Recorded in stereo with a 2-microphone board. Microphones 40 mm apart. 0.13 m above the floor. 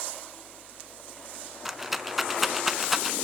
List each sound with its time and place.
1.6 s a rattle: 5° right (ahead or behind), 0.5 m